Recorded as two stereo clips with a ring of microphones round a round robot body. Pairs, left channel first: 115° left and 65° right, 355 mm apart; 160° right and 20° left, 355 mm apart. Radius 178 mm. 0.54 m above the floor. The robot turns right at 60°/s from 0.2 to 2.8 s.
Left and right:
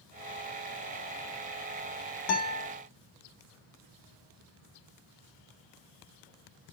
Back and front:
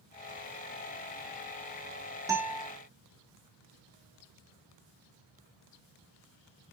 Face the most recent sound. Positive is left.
turn(degrees=135)